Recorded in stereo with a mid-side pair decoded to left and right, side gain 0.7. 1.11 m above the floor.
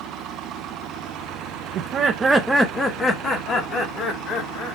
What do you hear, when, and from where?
1.8 s laughter: 55° right, 0.7 m; by 4.8 s 55° left, 2.5 m